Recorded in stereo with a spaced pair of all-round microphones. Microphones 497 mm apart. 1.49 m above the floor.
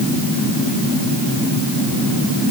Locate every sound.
Only background noise.